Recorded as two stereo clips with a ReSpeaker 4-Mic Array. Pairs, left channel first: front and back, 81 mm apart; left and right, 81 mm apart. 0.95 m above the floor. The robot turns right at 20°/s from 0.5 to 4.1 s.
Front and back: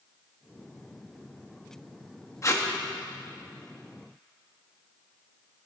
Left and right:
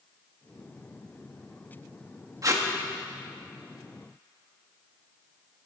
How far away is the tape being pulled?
About 1.7 m.